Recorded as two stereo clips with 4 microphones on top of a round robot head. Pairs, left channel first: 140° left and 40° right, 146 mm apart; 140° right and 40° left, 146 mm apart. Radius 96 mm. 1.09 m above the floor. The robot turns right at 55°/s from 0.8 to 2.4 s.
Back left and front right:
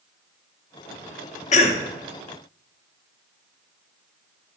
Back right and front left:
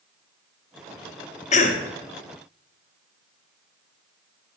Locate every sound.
1.5 s a cough: straight behind, 0.9 m; by 1.8 s 165° right, 0.9 m